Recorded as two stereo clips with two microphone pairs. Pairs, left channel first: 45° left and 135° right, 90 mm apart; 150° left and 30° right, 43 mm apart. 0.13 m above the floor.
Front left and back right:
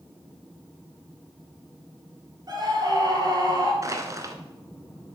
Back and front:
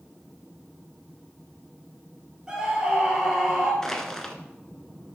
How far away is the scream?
About 3 m.